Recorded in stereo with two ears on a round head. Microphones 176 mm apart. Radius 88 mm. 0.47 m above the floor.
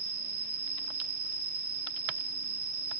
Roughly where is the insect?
Right.